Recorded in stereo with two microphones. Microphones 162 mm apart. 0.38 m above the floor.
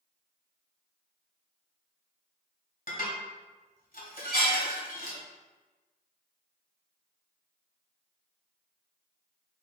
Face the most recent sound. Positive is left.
turn(degrees=60)  # may be behind; listen again after turning